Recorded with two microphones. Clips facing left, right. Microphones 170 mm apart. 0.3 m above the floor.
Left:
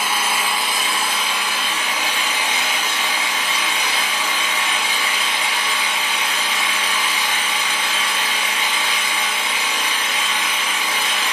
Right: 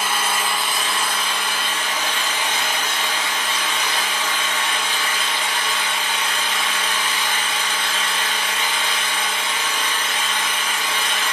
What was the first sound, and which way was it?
An engine running, 10° left (ahead or behind).